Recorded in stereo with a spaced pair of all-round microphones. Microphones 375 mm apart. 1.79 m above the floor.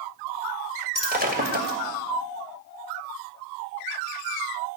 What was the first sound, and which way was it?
Breaking glass, 25° right (ahead or behind).